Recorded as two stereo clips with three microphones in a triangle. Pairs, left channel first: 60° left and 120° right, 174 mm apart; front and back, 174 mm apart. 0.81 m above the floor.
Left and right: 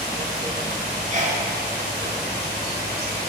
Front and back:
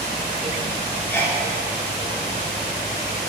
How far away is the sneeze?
About 2.5 m.